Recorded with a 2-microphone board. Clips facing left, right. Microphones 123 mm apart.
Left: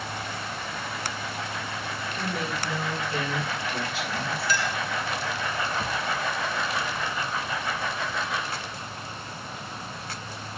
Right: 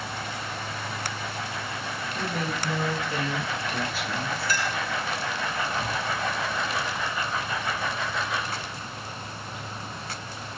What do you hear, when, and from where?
2.1 s a woman speaking: 35° right (ahead or behind), 6.5 m; by 4.5 s 40° right (ahead or behind), 3 m
4.5 s a clink: 45° right (ahead or behind), 1.2 m
5.8 s a thud: 10° left (ahead or behind), 3 m